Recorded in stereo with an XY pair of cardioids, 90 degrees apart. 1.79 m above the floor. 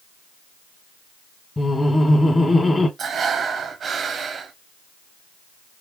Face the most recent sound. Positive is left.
turn(degrees=-55)